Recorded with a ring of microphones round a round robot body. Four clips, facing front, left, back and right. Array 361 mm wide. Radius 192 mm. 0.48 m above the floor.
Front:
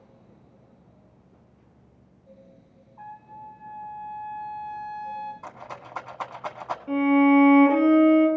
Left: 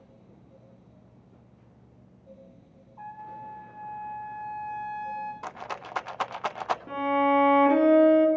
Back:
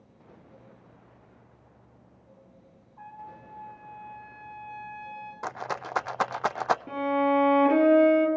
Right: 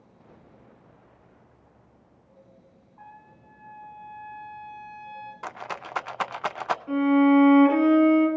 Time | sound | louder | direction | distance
3.0 | a trumpet | left 9 dB, front 2 dB | 115° left | 8.5 m
5.4 | a rattle | right 1 dB, back 6 dB | 170° right | 0.5 m
6.9 | a violin | right 6 dB, front 10 dB | 145° left | 5.5 m